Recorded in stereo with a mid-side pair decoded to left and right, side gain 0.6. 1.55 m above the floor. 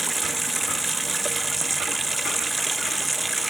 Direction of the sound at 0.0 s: 15° right.